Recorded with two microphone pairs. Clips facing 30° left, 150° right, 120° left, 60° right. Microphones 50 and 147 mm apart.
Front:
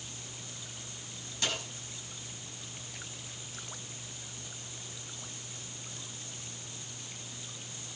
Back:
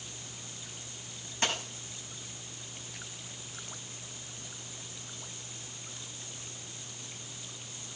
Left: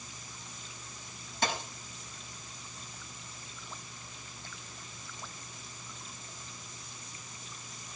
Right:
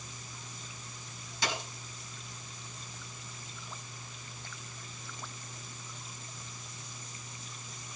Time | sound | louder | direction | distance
1.4 | a dropped coin | back 3 dB, left 2 dB | 155° left | 5.5 m